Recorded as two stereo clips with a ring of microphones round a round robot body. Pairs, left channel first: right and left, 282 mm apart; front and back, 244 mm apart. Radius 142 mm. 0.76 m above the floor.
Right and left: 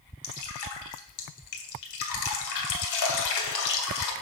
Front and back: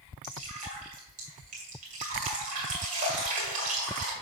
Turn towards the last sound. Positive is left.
turn(degrees=-115)